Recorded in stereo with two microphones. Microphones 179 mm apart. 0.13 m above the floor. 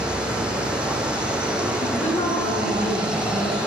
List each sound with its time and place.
0.0 s running water: 5° right (ahead or behind), 1.4 m
1.8 s a woman speaking: 40° left (ahead or behind), 2.5 m